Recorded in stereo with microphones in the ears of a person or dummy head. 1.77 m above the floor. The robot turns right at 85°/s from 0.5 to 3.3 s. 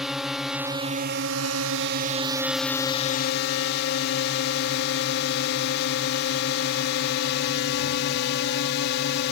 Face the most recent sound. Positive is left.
turn(degrees=60)